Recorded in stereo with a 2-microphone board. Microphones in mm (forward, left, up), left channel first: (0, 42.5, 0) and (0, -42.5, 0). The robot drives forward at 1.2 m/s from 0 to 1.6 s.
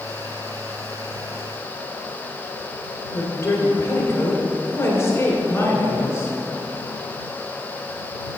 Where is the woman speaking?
30° left (ahead or behind), 1.5 m.